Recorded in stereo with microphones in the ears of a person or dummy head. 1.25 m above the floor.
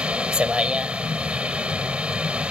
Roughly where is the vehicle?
Centre.